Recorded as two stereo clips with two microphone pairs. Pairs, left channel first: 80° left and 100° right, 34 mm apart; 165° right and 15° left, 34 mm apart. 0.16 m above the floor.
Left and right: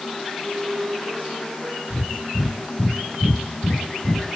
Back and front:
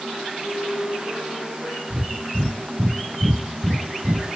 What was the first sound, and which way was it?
A flute, 155° right.